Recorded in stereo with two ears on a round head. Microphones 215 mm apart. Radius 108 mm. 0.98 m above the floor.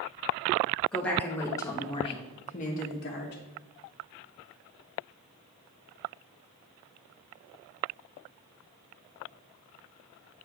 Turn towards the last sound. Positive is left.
turn(degrees=50)  # may be behind; listen again after turning